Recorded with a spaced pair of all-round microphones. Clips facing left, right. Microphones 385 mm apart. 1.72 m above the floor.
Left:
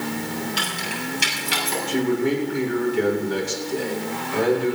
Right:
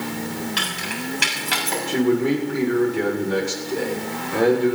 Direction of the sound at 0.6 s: 80° right.